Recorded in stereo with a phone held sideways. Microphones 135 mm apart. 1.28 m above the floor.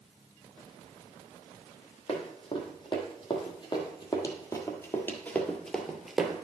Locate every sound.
2.1 s running footsteps: 40° left (ahead or behind), 2.5 m; by 6.4 s 10° right (ahead or behind), 1.2 m